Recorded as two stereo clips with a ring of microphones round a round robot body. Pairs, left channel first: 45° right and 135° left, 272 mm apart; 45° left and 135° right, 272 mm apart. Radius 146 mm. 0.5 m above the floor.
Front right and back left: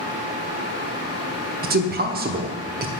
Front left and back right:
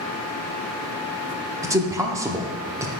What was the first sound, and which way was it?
A man speaking, 155° left.